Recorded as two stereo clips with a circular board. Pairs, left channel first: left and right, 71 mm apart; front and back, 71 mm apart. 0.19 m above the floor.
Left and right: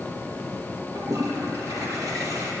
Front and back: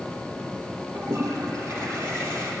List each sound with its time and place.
0.9 s a toilet flushing: 130° right, 4 m